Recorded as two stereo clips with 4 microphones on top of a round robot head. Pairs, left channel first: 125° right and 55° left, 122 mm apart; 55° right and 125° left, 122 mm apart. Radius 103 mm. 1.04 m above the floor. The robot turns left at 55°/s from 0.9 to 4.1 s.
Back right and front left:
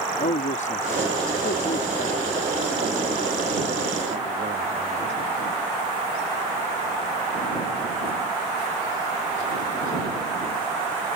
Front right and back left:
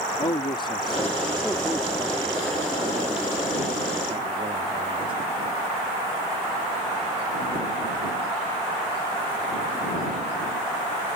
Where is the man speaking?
105° right; by 5.1 s 80° left.